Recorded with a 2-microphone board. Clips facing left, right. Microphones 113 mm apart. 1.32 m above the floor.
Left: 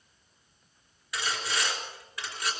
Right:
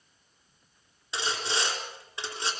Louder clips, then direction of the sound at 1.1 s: Right 1 dB; 25° right (ahead or behind).